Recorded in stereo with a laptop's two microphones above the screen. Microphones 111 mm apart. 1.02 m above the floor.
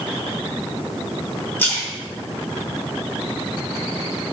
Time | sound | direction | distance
1.6 | a splash | 20° left (ahead or behind) | 1.1 m